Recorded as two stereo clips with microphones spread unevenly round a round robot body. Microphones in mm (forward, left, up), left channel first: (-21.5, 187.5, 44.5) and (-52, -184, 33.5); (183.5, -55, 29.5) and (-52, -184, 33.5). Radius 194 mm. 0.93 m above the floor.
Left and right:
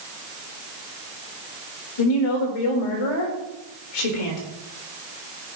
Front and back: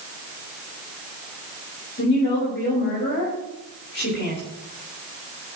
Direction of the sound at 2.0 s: 90° left.